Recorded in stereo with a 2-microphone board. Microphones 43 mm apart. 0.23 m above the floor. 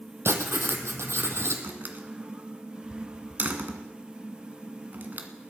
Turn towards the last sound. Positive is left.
turn(degrees=-45)  # may be behind; listen again after turning